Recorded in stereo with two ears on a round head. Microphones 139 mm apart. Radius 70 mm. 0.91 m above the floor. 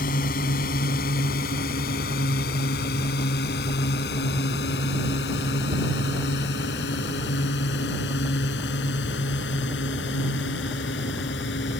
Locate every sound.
0.0 s a drone: 65° left (ahead or behind); by 11.8 s 85° left